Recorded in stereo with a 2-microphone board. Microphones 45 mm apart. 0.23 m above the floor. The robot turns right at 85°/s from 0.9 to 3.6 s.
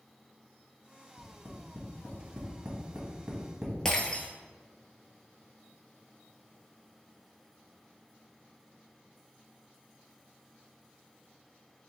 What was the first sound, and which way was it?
Tapping, 25° left (ahead or behind).